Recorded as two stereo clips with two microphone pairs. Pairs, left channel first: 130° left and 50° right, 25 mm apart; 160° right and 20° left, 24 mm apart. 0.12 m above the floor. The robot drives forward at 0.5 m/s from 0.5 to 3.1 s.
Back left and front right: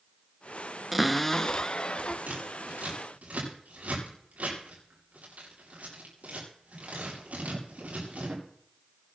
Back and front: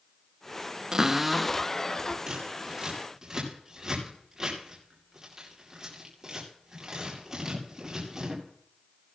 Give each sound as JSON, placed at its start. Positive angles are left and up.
{"t": 0.9, "sound": "a cupboard door", "azimuth_deg": 25, "distance_m": 0.5}
{"t": 2.3, "sound": "scissors", "azimuth_deg": -45, "distance_m": 8.0}